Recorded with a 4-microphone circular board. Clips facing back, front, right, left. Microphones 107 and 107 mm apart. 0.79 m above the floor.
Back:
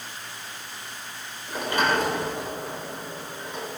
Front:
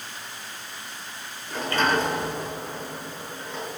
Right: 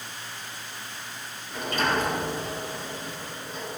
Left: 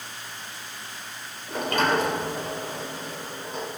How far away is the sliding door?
About 3.5 m.